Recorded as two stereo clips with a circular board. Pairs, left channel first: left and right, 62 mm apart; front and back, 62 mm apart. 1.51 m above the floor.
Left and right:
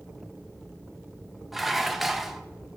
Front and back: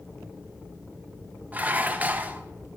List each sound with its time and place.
1.5 s dishes clattering: 175° right, 0.5 m